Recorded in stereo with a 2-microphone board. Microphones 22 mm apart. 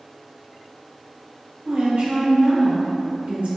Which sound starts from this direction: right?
A woman speaking, at 1.6 s.